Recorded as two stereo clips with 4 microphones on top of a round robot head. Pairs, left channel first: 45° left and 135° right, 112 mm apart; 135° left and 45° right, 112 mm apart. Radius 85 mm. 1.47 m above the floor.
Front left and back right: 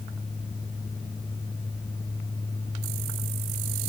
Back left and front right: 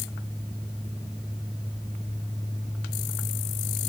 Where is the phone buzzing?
No phone buzzing in this recording.